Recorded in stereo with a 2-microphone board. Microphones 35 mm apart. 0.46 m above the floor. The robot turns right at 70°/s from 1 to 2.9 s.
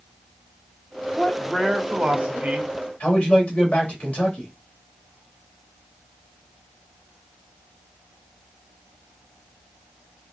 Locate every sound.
1.1 s a man speaking: 155° left, 1.2 m; by 2.7 s 95° right, 1.2 m
3.0 s a man speaking: 50° left (ahead or behind), 2 m